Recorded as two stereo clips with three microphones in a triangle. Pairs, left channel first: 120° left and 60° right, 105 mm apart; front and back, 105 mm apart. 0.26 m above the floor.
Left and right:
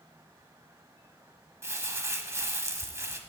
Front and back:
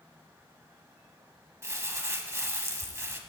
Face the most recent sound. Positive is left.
turn(degrees=-120)